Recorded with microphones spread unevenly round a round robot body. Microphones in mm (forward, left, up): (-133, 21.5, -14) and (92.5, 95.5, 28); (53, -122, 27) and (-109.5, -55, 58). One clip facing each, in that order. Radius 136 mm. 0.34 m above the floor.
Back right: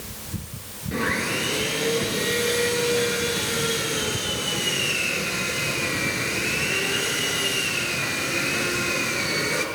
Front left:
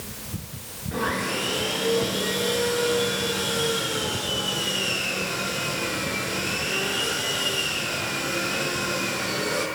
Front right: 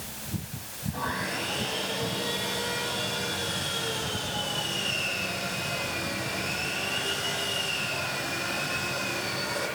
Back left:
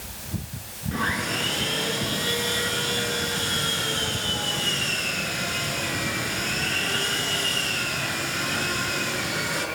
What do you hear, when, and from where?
0.9 s sawing: 140° left, 6 m